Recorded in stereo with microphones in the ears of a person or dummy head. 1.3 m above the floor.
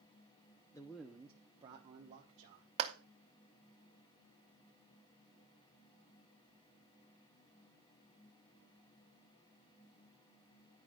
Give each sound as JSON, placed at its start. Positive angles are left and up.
{"t": 0.7, "sound": "a man speaking", "side_deg": 20, "distance_m": 0.7}
{"t": 2.8, "sound": "a clap", "side_deg": -30, "distance_m": 0.7}